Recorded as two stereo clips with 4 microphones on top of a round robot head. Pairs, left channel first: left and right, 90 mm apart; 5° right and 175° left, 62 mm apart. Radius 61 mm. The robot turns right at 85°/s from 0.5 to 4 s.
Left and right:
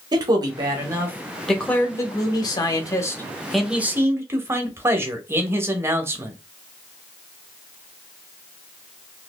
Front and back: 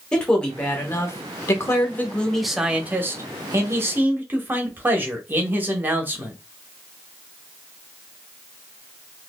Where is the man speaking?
80° right, 0.7 m; by 6.4 s 140° right, 0.7 m.